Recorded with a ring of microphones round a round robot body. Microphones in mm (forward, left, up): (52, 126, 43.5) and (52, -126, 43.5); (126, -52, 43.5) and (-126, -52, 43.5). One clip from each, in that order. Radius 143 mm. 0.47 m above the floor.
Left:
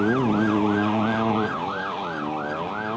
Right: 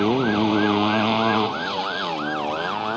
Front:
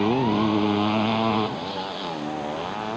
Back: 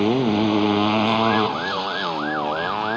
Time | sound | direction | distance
0.0 | a motorcycle | 115° right | ?